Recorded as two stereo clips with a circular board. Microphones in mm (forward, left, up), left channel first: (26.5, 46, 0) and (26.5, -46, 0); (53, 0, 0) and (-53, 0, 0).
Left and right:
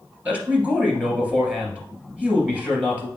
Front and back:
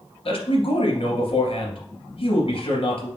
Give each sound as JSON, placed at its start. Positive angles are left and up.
{"t": 0.2, "sound": "a man speaking", "azimuth_deg": -15, "distance_m": 2.5}